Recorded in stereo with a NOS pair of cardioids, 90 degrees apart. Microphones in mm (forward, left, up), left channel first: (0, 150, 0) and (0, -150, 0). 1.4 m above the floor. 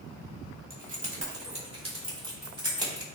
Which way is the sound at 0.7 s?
30° right.